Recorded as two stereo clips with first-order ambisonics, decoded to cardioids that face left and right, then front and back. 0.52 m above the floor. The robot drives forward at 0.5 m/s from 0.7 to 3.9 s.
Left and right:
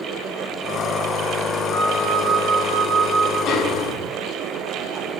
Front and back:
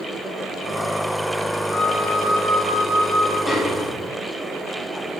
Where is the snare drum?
90° left, 1.1 m; by 4.1 s 105° left, 1.1 m.